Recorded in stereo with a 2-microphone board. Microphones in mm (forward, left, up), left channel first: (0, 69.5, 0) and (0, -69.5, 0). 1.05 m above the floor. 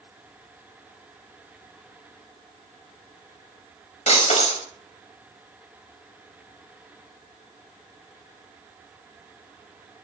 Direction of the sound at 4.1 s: 55° left (ahead or behind).